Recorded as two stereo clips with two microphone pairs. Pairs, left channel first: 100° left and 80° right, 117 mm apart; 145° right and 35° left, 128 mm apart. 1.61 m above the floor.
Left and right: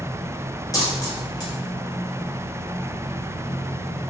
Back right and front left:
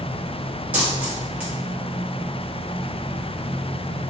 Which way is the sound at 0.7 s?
100° left.